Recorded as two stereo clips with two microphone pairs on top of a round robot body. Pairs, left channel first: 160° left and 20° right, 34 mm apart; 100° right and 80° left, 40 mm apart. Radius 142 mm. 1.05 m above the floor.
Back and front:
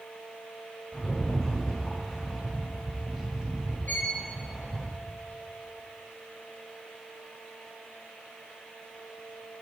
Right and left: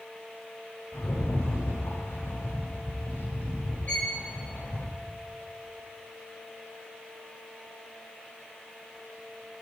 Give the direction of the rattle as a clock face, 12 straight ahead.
3 o'clock.